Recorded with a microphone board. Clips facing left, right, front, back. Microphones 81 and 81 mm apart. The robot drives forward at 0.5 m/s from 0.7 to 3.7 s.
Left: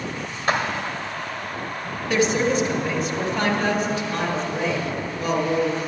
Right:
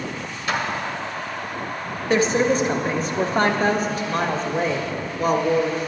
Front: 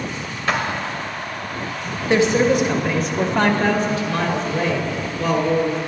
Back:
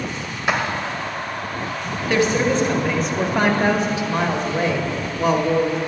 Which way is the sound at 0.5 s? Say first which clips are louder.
Left 2 dB, even; 110° left.